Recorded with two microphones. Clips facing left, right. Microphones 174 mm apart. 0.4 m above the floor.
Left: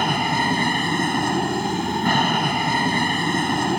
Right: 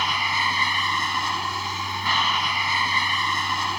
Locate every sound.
0.0 s an aircraft: 50° left (ahead or behind)